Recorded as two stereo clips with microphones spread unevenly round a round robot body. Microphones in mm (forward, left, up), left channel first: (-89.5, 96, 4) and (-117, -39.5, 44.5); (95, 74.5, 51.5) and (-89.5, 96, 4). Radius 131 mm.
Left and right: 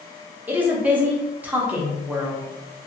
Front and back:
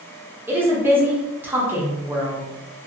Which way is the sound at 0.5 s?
155° left.